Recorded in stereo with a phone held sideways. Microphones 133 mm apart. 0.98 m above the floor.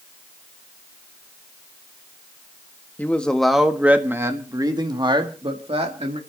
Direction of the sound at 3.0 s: 15° left (ahead or behind).